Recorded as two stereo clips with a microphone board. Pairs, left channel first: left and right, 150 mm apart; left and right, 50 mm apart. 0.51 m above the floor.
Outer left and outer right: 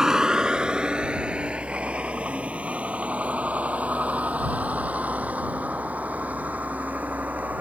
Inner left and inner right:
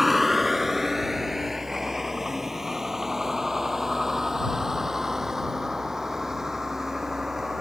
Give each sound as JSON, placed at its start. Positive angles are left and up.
{"t": 0.0, "sound": "a vehicle", "side_deg": -5}